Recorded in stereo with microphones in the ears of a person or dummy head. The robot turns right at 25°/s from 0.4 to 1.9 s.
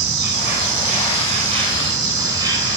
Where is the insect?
60° right, 6.5 m; by 2.8 s 25° right, 6.5 m.